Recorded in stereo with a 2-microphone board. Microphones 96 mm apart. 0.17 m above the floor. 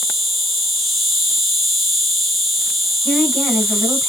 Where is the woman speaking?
10° left (ahead or behind), 1.5 m.